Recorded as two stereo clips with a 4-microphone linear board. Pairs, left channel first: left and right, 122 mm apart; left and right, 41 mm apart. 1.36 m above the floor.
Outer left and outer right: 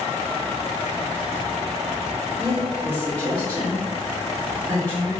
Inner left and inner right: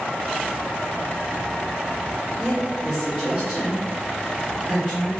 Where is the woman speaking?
30° right (ahead or behind), 1.5 m.